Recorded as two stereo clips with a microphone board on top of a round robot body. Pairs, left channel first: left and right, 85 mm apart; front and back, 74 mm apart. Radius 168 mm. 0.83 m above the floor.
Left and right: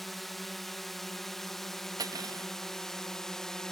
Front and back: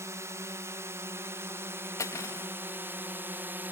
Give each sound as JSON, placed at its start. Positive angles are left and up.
{"t": 0.0, "sound": "a drone", "azimuth_deg": 175}
{"t": 2.0, "sound": "cutlery clinking", "azimuth_deg": -50}